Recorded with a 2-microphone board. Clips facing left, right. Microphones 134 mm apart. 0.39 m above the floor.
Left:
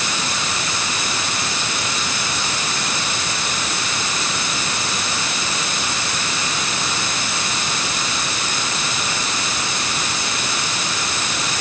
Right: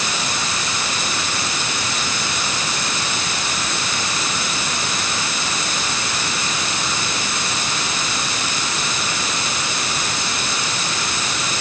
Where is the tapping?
I don't hear tapping.